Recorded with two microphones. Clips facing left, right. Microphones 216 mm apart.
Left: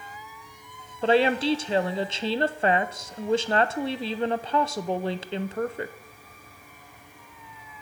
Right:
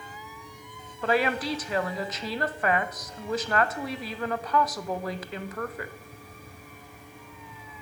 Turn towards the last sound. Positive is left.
turn(degrees=30)  # may be behind; listen again after turning